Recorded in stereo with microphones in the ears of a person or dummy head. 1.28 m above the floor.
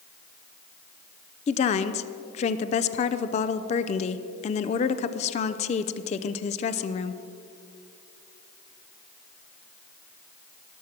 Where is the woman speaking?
35° left (ahead or behind), 0.5 m.